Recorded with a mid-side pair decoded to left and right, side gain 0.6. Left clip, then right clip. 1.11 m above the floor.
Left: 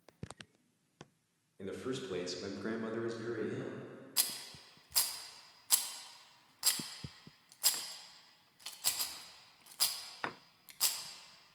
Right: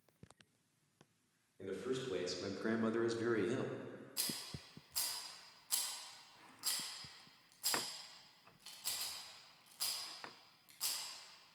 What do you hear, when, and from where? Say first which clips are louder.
1.6 s a man speaking: left 1 dB; 30° left, 1.4 m; by 3.7 s 65° right, 1.0 m
4.2 s a rattle: left 6 dB; 50° left, 0.6 m